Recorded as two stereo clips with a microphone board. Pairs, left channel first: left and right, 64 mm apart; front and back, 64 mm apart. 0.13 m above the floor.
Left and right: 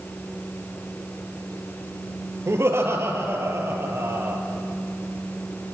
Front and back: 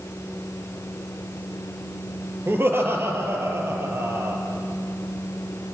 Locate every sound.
2.5 s laughter: 130° right, 3 m; by 4.4 s 140° right, 4 m